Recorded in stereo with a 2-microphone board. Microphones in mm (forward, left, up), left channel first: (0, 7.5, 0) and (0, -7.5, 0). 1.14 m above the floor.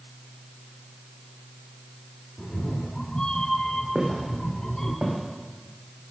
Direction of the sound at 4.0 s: 75° right (ahead or behind).